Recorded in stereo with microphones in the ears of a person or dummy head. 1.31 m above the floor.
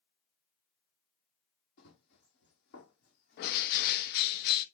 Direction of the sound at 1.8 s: 55° left (ahead or behind).